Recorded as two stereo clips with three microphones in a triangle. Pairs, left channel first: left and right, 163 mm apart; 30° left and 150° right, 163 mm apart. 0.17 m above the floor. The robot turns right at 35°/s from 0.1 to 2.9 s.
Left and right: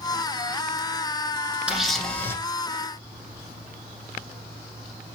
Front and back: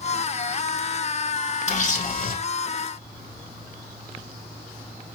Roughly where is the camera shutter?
Ahead.